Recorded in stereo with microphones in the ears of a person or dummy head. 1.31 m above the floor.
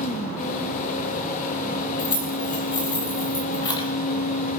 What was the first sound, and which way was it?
A fan, 40° left (ahead or behind).